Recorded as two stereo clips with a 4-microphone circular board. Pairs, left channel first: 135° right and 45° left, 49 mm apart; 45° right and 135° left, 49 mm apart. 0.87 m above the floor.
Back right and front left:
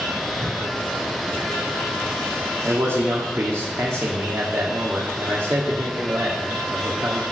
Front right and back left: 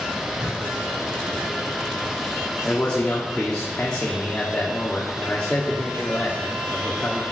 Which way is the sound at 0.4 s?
45° left.